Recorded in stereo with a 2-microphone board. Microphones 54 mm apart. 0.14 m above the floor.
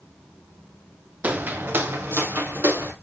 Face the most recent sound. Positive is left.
turn(degrees=-45)  # may be behind; listen again after turning